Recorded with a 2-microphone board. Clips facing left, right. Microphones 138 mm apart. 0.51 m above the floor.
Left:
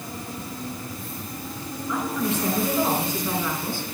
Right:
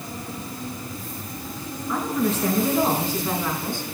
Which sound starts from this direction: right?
A woman speaking, at 1.9 s.